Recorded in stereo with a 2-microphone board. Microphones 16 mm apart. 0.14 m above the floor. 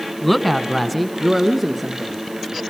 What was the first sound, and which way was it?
A woman speaking, 10° left (ahead or behind).